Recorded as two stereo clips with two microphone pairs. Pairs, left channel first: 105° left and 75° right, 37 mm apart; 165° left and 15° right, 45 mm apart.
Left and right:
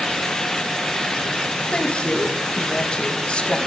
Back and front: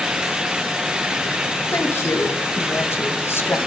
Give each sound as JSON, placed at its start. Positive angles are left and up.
{"t": 1.7, "sound": "a woman speaking", "azimuth_deg": 160, "distance_m": 2.0}